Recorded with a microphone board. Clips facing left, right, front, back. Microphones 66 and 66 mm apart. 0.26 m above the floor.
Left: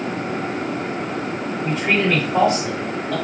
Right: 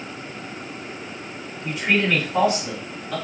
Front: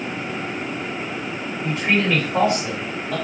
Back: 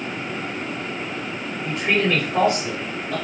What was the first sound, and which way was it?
A man speaking, 60° left.